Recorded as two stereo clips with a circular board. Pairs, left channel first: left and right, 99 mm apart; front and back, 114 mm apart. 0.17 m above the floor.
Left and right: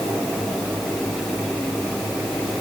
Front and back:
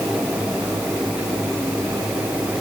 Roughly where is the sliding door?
I don't hear a sliding door.